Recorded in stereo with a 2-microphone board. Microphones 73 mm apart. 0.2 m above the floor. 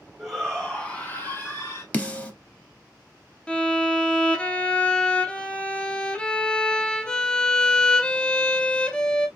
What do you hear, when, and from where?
0.2 s a shout: centre (ahead or behind), 1.5 m; by 1.8 s 40° left (ahead or behind), 1.9 m
1.9 s a snare drum: 20° left (ahead or behind), 0.8 m
3.5 s a violin: 10° left (ahead or behind), 0.7 m